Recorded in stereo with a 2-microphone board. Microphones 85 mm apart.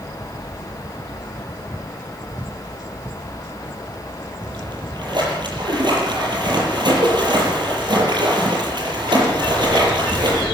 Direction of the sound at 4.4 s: 60° right (ahead or behind).